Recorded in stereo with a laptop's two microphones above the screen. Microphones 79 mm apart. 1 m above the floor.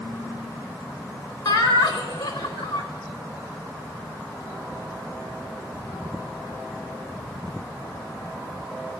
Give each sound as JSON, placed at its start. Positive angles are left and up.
{"t": 1.4, "sound": "laughter", "side_deg": 50, "distance_m": 4.5}